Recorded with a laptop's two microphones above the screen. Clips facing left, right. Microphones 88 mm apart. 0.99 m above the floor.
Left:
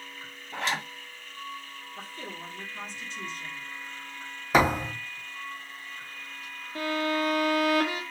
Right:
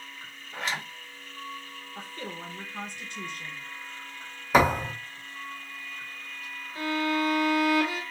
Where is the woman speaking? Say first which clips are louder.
Right 2 dB; 50° right (ahead or behind), 1.2 m.